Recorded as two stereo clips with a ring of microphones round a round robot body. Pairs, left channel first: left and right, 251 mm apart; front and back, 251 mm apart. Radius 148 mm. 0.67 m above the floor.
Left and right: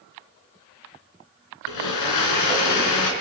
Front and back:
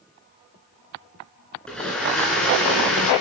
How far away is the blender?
About 3 m.